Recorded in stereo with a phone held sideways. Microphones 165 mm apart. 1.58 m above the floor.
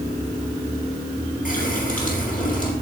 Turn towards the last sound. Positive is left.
turn(degrees=60)  # may be behind; listen again after turning